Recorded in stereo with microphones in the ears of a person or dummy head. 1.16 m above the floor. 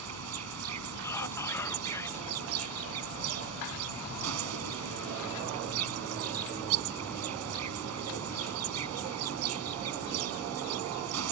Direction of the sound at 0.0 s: 75° right (ahead or behind).